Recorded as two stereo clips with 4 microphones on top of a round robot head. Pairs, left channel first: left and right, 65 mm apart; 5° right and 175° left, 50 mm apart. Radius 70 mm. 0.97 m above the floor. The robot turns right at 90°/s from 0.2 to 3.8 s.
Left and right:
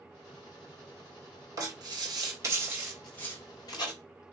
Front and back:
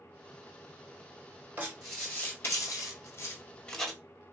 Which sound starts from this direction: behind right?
Writing, at 1.6 s.